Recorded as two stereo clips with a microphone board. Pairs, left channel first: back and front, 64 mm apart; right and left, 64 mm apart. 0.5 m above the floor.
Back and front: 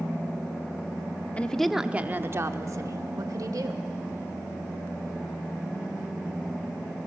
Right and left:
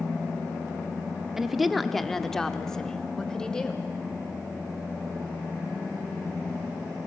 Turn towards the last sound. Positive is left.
turn(degrees=-10)